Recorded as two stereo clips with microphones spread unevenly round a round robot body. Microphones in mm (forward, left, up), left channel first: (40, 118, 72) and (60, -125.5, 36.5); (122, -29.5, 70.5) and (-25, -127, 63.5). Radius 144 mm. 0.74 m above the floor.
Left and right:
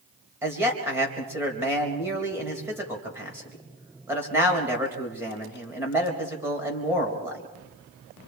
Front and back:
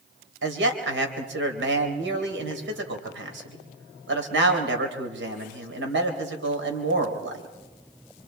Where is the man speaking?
165° right, 3.5 m.